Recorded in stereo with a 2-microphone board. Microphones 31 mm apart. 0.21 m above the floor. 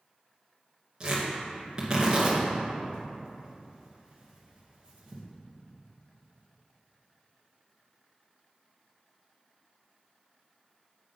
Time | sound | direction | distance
1.0 | tearing paper | 25° right (ahead or behind) | 2.5 m